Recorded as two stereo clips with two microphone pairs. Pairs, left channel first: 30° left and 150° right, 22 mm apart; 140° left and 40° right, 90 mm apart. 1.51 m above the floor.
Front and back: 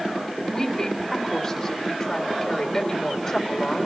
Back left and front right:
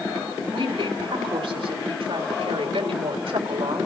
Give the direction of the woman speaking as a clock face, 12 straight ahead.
2 o'clock.